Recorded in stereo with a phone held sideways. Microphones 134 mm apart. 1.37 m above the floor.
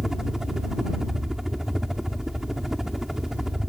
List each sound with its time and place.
0.0 s a helicopter: 5° right (ahead or behind)